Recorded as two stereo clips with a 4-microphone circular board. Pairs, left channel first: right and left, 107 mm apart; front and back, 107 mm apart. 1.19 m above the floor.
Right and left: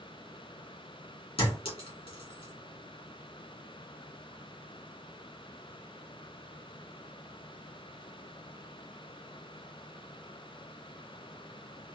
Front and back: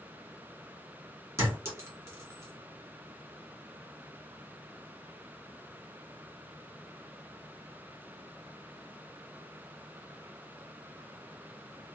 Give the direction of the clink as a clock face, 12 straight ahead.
4 o'clock.